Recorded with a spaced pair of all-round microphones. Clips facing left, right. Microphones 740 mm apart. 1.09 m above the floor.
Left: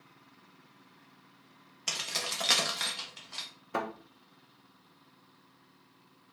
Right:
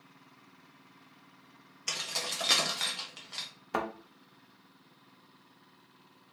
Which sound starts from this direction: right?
A thud, at 3.7 s.